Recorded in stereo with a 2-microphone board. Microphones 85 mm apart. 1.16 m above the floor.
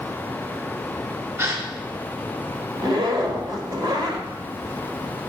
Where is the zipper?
55° right (ahead or behind), 1.9 m.